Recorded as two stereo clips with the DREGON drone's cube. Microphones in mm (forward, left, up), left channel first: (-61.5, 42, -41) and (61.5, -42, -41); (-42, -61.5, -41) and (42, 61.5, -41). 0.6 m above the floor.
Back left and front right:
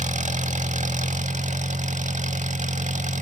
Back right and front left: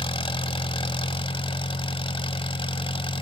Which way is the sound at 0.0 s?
70° right.